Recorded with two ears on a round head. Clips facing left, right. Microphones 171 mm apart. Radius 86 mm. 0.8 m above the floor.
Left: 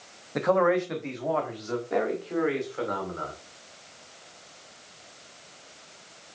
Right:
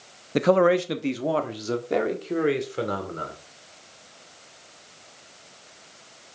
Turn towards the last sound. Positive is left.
turn(degrees=-40)  # may be behind; listen again after turning